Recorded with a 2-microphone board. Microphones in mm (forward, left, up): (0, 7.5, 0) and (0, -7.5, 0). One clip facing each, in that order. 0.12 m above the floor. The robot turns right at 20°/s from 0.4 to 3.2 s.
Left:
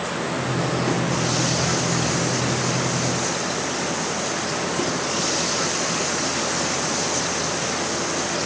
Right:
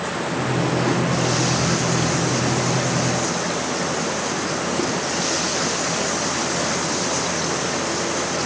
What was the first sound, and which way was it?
Only background noise.